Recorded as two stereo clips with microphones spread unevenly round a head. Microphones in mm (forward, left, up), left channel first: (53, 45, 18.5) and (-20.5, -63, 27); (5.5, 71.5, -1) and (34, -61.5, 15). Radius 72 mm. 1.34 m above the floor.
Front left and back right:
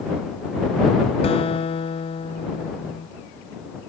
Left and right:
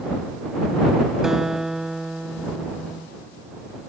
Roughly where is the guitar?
Ahead.